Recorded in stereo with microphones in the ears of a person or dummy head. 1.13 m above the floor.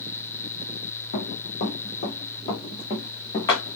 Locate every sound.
1.1 s running footsteps: 50° left (ahead or behind), 3.5 m; by 3.8 s 15° left (ahead or behind), 4.5 m